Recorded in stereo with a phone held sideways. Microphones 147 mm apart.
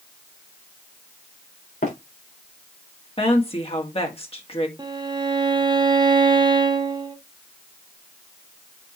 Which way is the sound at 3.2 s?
40° left (ahead or behind).